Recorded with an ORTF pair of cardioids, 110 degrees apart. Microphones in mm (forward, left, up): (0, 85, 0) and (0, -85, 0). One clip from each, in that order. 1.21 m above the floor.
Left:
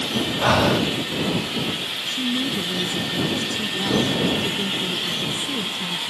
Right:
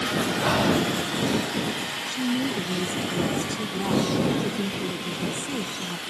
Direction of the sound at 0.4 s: 30° left.